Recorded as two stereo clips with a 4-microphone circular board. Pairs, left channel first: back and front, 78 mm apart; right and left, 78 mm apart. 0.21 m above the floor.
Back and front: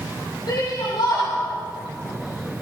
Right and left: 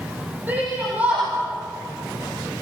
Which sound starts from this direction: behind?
A shout, at 0.5 s.